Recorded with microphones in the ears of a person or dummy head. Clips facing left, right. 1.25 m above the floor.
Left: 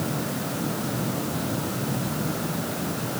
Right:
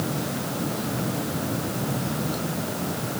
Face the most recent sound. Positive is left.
No sound to turn to.